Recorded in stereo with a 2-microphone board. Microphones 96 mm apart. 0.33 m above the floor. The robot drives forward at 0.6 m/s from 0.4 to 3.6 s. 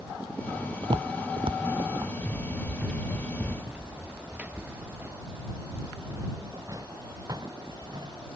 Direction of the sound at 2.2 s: 5° left (ahead or behind).